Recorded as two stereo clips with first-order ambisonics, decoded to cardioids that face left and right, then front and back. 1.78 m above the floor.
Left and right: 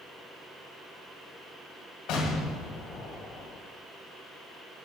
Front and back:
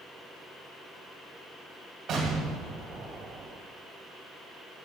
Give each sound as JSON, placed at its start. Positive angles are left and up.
{"t": 2.1, "sound": "an explosion", "azimuth_deg": 120, "distance_m": 2.0}